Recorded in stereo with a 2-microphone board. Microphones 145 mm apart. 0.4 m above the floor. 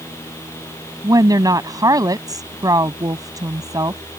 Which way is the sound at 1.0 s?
25° right (ahead or behind).